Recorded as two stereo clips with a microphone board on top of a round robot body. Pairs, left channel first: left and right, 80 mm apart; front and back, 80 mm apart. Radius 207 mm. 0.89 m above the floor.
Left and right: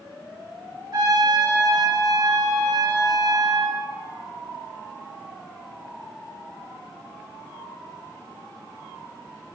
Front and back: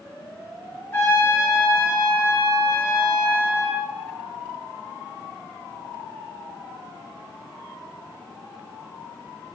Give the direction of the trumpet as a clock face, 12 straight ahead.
2 o'clock.